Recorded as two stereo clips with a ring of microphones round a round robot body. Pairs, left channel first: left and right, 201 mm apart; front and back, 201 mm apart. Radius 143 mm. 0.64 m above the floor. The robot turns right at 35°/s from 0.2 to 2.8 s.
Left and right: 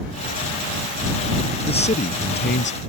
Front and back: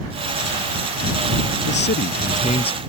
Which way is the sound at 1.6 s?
25° left.